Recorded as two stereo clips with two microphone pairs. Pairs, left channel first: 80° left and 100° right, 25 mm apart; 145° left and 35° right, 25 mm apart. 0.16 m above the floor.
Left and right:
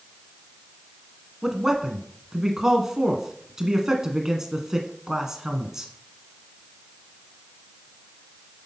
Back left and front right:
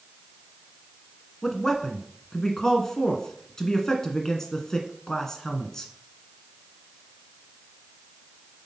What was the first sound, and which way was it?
A man speaking, 155° right.